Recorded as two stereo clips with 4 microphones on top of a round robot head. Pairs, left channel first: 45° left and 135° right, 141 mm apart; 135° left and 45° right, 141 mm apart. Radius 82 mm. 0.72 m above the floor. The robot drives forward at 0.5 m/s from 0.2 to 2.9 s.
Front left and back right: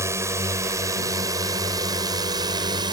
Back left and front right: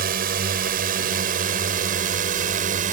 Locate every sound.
0.0 s a drone: 65° right; by 2.9 s 75° right